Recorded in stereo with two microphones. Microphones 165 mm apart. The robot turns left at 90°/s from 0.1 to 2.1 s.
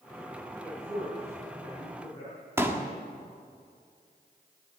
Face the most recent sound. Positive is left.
turn(degrees=-15)  # may be behind; listen again after turning